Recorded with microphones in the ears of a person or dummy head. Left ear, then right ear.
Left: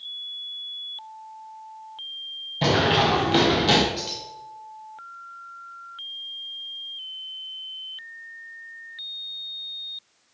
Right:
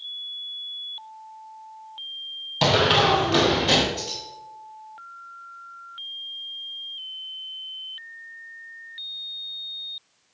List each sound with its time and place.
2.6 s running footsteps: 30° right (ahead or behind), 1.6 m; by 3.8 s 20° left (ahead or behind), 2.0 m
4.0 s keys jangling: 35° left (ahead or behind), 3.5 m